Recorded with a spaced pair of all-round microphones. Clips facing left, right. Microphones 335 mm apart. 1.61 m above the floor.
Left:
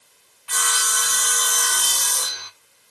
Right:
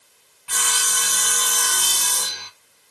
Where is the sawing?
35° right (ahead or behind), 0.8 m.